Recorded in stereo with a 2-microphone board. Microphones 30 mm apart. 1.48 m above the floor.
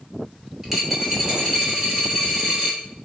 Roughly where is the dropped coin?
Centre.